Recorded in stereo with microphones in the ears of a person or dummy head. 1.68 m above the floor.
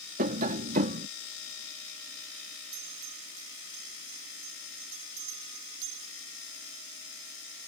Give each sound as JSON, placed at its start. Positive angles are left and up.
{"t": 0.2, "sound": "tapping", "side_deg": -35}
{"t": 2.7, "sound": "a bell", "side_deg": -70}